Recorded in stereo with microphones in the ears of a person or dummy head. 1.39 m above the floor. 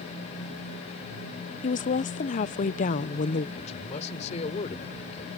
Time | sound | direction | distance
1.6 | a woman speaking | 40° left (ahead or behind) | ?
3.6 | a man speaking | 40° left (ahead or behind) | ?